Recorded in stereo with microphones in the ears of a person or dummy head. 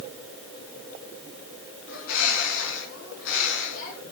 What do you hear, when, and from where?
1.9 s a bird: 80° left, 6 m